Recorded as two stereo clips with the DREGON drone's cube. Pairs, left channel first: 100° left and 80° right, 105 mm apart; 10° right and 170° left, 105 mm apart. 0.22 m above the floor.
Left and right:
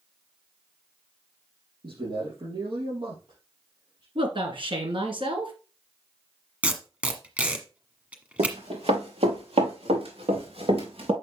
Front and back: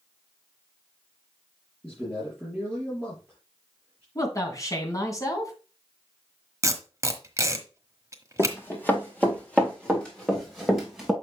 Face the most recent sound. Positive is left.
turn(degrees=-105)